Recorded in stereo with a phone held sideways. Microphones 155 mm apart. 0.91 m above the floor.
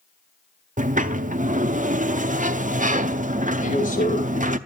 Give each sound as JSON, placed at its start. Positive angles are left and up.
{"t": 0.8, "sound": "a sliding door", "side_deg": -55, "distance_m": 0.6}
{"t": 3.6, "sound": "a man speaking", "side_deg": 60, "distance_m": 4.0}